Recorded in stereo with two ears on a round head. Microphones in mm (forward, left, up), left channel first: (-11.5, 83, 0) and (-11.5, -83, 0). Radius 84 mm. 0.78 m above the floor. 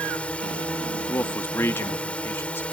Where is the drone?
5° left (ahead or behind).